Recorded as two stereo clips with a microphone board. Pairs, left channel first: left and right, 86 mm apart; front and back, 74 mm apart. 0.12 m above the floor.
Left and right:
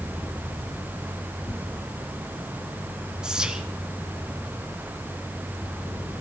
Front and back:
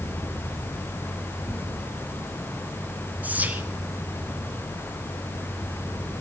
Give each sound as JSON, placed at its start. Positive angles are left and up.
{"t": 1.5, "sound": "tearing paper", "azimuth_deg": 135, "distance_m": 2.5}
{"t": 3.2, "sound": "whispering", "azimuth_deg": -155, "distance_m": 1.3}